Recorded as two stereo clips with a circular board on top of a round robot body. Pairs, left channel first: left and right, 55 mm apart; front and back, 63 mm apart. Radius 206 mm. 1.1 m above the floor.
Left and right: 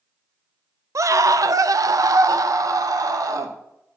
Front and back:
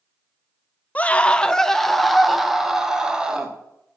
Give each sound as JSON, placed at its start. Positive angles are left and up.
{"t": 0.9, "sound": "a scream", "azimuth_deg": -65, "distance_m": 0.9}